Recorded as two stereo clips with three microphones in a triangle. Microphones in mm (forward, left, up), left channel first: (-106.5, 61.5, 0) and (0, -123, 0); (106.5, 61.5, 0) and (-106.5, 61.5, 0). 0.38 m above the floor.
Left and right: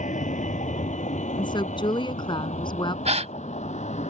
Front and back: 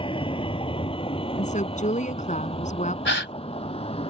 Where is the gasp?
5° right.